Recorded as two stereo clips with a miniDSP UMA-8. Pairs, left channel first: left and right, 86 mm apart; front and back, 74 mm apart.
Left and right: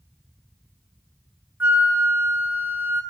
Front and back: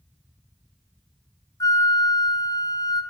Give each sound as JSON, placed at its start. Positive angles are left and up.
{"t": 1.6, "sound": "a flute", "azimuth_deg": -25, "distance_m": 0.7}